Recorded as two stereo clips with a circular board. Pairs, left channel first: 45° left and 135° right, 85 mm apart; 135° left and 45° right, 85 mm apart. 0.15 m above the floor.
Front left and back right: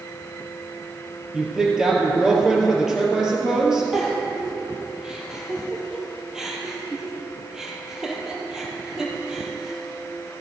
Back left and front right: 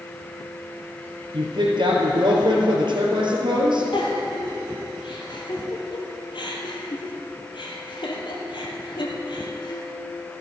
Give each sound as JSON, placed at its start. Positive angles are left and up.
{"t": 1.3, "sound": "a woman speaking", "azimuth_deg": -50, "distance_m": 3.0}
{"t": 3.9, "sound": "a giggle", "azimuth_deg": 140, "distance_m": 2.5}